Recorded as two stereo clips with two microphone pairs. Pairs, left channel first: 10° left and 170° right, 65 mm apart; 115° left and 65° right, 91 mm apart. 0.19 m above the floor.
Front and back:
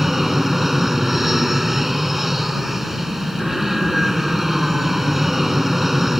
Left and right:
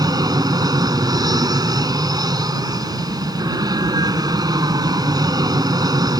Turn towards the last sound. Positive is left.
turn(degrees=-85)